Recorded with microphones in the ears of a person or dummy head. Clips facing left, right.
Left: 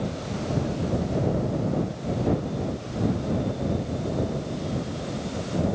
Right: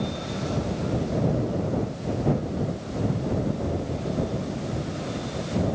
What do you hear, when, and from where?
Only background noise.